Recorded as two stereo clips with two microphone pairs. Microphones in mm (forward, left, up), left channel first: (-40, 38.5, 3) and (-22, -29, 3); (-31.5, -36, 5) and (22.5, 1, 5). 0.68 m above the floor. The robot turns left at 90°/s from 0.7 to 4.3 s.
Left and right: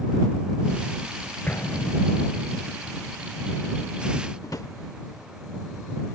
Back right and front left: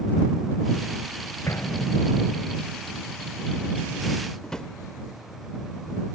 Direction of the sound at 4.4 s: 135° left.